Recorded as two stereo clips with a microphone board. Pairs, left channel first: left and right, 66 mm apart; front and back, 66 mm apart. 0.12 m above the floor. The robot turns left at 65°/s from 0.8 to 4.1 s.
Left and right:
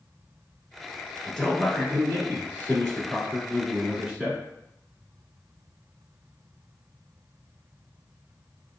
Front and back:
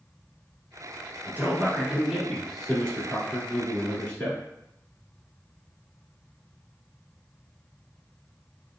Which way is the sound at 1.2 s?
160° left.